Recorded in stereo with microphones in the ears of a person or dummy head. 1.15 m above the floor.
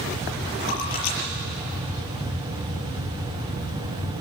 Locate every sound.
0.6 s a splash: 75° left (ahead or behind), 5 m